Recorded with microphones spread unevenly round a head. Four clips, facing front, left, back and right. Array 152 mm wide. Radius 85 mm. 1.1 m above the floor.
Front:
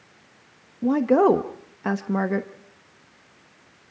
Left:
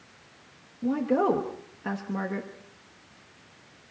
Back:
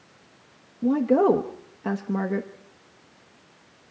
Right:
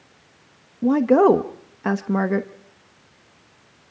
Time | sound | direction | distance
0.8 | a woman speaking | 125° right | 0.9 m